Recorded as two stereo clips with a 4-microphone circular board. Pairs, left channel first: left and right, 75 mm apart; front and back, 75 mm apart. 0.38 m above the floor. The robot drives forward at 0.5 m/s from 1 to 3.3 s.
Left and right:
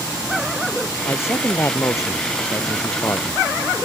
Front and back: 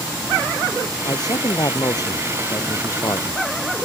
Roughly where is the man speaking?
Ahead left.